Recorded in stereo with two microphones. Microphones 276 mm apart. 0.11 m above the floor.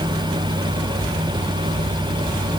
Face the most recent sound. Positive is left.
No sound to turn to.